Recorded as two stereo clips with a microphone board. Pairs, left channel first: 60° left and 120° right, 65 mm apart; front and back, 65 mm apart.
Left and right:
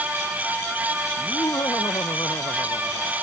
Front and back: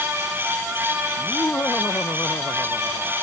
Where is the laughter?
55° left.